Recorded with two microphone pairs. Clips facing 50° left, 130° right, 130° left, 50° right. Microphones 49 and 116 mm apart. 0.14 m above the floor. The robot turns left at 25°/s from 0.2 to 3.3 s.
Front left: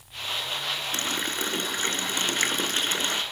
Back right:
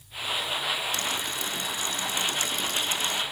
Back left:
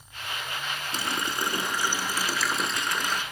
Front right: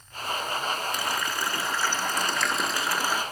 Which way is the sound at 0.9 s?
80° left.